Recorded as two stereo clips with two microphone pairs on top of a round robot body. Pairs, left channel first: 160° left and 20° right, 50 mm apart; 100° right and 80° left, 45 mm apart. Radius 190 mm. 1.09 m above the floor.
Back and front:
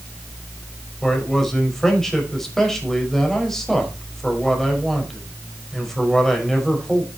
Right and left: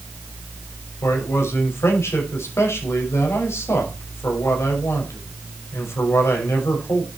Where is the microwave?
I don't hear a microwave.